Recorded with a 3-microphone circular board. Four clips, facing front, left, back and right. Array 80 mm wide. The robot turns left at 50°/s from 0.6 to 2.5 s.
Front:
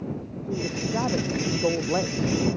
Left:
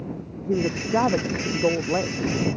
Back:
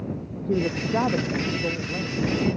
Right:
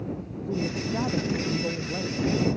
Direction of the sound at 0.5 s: 125° left.